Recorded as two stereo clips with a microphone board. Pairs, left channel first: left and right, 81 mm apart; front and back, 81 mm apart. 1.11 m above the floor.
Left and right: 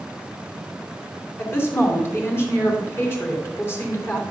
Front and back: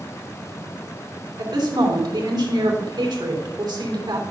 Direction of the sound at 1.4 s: 150° left.